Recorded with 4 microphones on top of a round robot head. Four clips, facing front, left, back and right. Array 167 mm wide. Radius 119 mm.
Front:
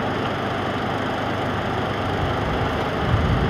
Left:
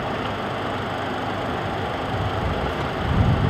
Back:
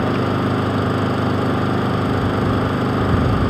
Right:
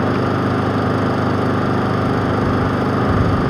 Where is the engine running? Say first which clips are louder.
Right 9 dB, back 5 dB; 125° right.